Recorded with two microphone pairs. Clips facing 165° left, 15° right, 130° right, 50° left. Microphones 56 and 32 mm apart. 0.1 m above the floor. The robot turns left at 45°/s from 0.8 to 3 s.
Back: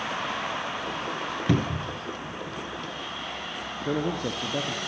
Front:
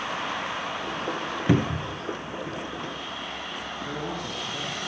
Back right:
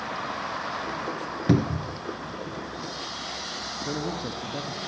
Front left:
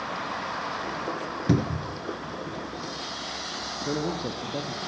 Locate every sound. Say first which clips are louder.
1.5 s a cupboard door: front 3 dB, back right 2 dB; 65° right, 0.6 m; by 2.0 s 90° right, 0.6 m
3.9 s a man speaking: back 8 dB, front left 3 dB; 120° left, 3.5 m